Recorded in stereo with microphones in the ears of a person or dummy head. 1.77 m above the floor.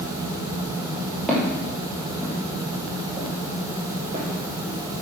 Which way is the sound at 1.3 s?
Centre (ahead or behind).